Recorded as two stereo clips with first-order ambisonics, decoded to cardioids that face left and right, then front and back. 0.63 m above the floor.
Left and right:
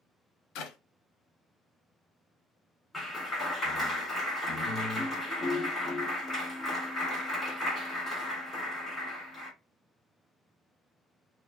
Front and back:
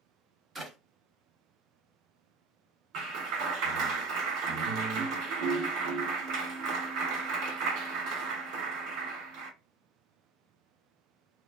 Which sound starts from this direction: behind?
A clap, at 2.9 s.